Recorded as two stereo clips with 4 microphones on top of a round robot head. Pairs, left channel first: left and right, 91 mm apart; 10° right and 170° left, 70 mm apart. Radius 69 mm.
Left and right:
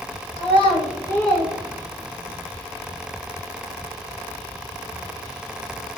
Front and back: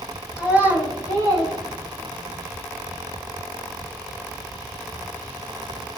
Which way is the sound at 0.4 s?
90° left.